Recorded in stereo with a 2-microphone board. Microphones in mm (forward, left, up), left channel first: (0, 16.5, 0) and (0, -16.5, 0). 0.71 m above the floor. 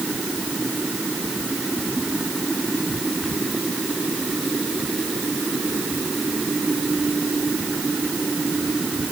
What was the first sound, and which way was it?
Only background noise.